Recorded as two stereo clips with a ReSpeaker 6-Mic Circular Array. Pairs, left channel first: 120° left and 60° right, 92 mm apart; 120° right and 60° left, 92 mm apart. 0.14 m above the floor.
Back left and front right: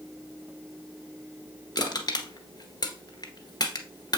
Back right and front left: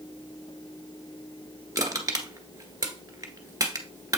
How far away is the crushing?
About 1.4 m.